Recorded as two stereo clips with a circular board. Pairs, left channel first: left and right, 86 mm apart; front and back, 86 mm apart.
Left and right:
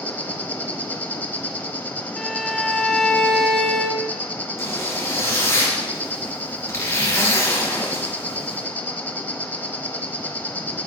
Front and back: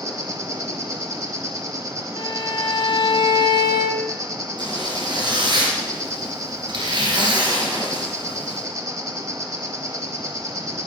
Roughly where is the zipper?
Behind left.